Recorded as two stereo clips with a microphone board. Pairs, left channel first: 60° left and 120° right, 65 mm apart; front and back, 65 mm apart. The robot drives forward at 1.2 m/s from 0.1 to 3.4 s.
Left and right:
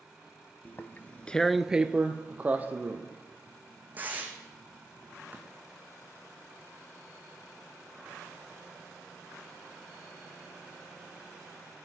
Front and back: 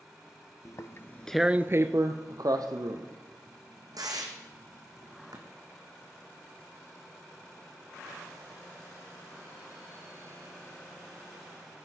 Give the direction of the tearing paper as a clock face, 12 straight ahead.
12 o'clock.